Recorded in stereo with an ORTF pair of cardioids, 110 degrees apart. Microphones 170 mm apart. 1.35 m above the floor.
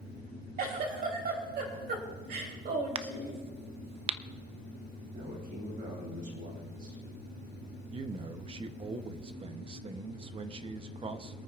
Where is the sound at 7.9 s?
30° right, 1.0 m.